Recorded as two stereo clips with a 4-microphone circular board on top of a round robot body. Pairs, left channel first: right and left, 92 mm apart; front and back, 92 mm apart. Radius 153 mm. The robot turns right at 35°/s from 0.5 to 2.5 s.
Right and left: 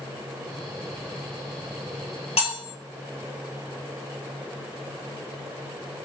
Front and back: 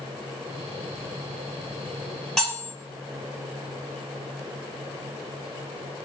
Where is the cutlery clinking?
85° right, 1.7 m; by 2.7 s 80° right, 1.7 m.